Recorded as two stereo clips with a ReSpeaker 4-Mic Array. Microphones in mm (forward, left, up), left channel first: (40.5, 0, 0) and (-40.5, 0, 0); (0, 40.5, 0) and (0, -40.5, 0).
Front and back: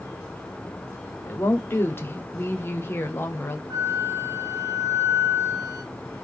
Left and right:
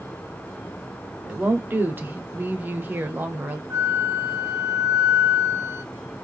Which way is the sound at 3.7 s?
140° right.